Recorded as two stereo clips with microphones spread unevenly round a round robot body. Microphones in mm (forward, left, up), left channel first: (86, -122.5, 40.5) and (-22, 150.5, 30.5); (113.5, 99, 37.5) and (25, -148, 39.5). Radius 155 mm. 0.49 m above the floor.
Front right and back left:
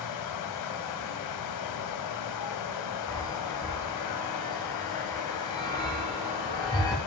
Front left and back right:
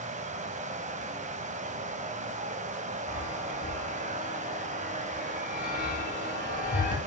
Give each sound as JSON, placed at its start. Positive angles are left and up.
{"t": 0.0, "sound": "running water", "azimuth_deg": -45, "distance_m": 1.0}
{"t": 3.1, "sound": "a chime", "azimuth_deg": 10, "distance_m": 3.5}